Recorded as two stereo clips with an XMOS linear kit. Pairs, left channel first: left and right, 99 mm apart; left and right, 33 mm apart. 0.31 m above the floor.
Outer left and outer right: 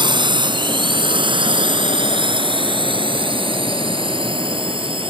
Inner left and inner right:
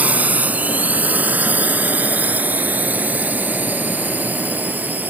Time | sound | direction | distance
0.0 | a drone | 50° right (ahead or behind) | ?